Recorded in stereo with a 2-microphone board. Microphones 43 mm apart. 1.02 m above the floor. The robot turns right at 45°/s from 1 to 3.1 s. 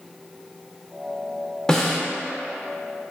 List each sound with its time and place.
1.7 s a snare drum: 15° left (ahead or behind), 0.6 m; by 2.0 s centre (ahead or behind), 0.6 m